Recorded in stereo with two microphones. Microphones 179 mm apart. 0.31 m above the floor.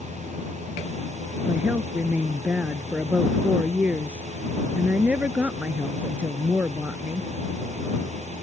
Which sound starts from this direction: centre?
A woman speaking, at 1.4 s.